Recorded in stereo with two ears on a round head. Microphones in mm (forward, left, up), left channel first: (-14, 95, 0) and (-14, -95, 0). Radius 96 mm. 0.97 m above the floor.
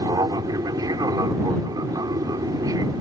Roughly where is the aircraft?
Centre.